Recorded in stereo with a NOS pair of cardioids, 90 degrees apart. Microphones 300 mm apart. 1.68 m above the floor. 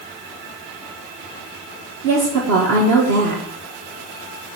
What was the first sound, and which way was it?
A woman speaking, 65° right.